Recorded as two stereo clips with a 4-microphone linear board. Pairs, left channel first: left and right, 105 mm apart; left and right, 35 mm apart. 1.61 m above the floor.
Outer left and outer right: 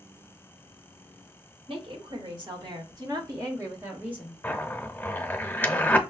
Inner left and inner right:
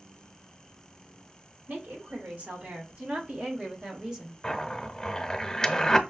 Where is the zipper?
20° left (ahead or behind), 0.6 m.